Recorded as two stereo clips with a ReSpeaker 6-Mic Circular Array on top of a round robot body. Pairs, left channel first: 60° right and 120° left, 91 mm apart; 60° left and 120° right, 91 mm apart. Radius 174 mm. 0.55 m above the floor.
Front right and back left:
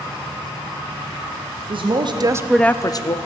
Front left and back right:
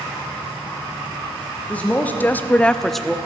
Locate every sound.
1.7 s a woman speaking: 135° left, 1.3 m; by 3.2 s 30° right, 1.1 m